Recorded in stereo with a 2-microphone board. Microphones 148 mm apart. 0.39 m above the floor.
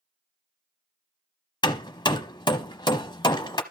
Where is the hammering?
30° left (ahead or behind), 0.9 m.